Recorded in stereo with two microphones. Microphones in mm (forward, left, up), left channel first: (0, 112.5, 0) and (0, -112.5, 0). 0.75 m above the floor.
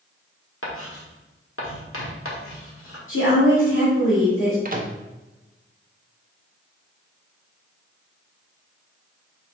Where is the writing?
70° left (ahead or behind), 1.3 m.